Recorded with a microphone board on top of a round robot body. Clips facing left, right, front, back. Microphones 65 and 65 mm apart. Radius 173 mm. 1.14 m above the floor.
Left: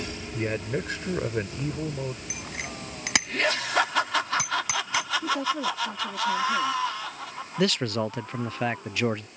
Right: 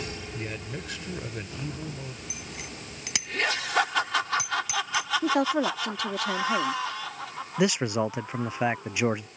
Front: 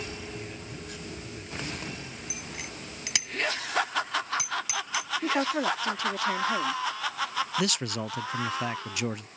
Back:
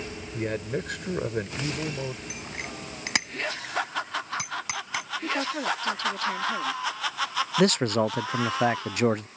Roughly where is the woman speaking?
Right.